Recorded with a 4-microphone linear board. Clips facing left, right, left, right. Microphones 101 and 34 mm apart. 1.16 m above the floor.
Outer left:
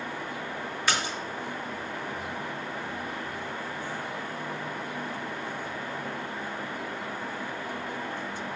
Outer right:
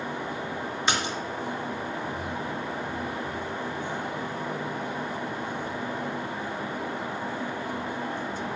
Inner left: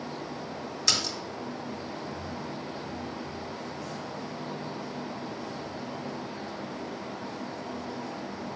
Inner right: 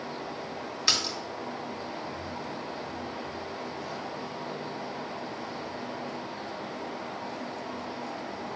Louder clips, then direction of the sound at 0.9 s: Outer right 1 dB, inner right 1 dB; 25° right (ahead or behind).